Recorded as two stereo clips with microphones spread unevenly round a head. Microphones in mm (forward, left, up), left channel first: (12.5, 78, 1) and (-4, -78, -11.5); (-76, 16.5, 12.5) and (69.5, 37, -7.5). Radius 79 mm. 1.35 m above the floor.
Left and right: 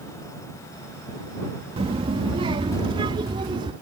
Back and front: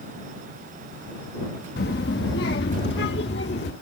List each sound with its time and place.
1.8 s a child speaking: 155° right; by 3.7 s 160° right